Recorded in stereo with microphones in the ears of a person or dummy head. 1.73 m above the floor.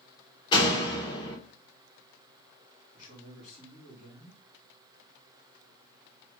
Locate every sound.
0.5 s a door slam: 25° left (ahead or behind), 1.7 m
2.9 s a man speaking: 45° left (ahead or behind), 2.5 m